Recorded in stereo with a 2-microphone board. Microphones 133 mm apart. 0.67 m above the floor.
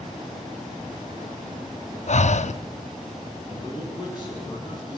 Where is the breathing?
60° left (ahead or behind), 0.6 m.